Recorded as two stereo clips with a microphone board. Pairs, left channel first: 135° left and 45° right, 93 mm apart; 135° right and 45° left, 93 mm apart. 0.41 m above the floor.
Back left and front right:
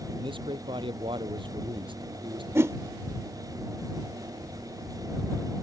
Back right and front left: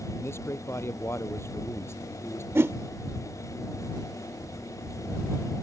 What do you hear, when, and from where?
0.1 s a man speaking: 75° right
2.5 s a whoosh: 5° right